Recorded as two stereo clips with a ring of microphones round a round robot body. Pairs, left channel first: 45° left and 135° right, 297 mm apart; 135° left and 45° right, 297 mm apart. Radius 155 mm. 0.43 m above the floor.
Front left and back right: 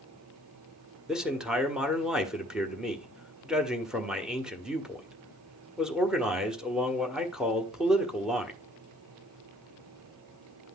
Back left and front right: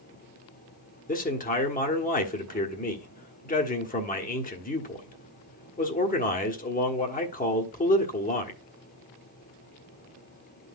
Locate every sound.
1.1 s a man speaking: 140° left, 1.3 m